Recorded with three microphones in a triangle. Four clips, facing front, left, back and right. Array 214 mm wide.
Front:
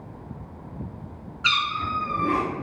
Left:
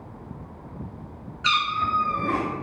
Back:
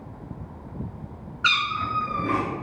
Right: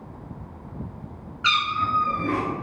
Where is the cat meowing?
130° right, 1.8 m.